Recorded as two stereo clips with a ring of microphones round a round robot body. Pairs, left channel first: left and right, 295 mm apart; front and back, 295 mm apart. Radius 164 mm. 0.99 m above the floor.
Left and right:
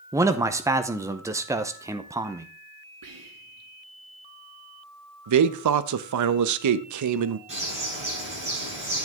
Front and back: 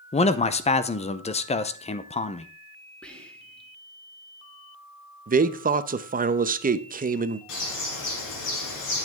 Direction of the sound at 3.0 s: 85° right.